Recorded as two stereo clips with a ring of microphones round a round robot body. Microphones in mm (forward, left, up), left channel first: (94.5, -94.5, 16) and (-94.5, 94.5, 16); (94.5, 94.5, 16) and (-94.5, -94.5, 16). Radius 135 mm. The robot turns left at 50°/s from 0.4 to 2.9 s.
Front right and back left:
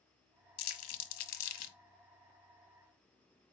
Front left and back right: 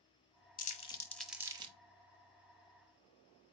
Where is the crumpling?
10° right, 0.7 m; by 1.8 s 70° right, 0.7 m.